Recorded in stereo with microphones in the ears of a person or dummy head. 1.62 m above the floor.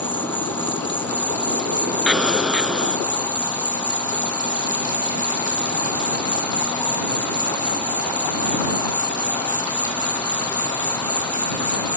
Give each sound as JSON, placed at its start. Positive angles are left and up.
{"t": 0.0, "sound": "an insect", "side_deg": 10}
{"t": 2.1, "sound": "an explosion", "side_deg": 0}